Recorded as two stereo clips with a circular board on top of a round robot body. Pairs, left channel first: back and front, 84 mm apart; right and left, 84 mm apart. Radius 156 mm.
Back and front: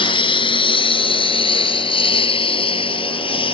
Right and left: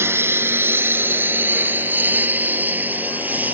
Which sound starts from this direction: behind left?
A lawn mower, at 0.0 s.